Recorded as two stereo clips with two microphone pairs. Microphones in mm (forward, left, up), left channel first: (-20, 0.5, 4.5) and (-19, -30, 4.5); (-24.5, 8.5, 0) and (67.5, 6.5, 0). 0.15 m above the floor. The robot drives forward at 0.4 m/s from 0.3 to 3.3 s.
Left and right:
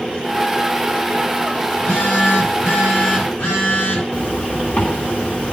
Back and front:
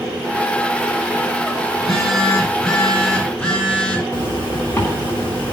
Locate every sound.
1.7 s a phone buzzing: 95° left, 3.5 m; by 4.0 s 105° left, 3.5 m
4.1 s a zipper: 120° left, 5.5 m